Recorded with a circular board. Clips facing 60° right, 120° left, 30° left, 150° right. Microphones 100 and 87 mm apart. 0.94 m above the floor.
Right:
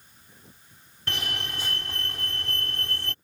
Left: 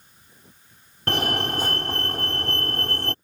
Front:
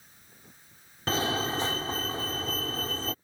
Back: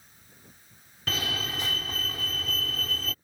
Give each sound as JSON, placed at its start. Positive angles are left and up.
{"t": 1.1, "sound": "a fire alarm", "azimuth_deg": 85}